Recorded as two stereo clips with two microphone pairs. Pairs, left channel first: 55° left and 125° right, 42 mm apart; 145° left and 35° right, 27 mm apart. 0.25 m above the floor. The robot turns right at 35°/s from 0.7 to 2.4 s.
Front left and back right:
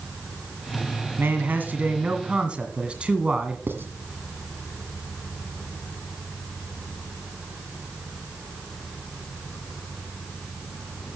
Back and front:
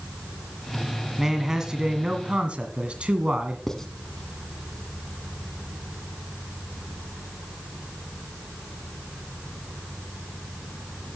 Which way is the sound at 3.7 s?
140° right.